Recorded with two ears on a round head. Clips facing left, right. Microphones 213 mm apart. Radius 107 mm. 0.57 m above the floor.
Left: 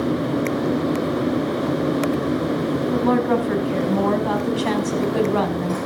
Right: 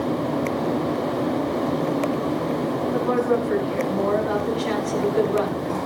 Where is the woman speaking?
65° left (ahead or behind), 5.5 m.